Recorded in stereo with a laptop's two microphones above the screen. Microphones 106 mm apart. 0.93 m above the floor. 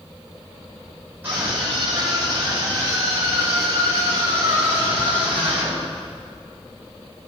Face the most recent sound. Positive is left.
turn(degrees=-10)  # may be behind; listen again after turning